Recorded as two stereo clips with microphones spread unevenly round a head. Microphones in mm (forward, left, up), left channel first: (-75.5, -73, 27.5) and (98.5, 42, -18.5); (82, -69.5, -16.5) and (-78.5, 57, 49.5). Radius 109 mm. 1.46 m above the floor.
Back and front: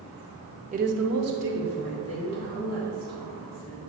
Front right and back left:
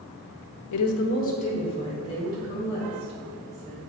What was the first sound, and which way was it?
A woman speaking, 30° right.